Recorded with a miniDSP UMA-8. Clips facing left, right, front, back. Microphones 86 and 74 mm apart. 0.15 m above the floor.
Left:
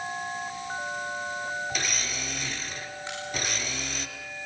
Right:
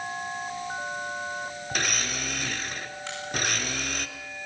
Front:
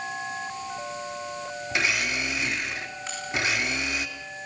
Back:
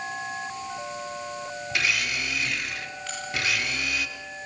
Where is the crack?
70° right, 10 m.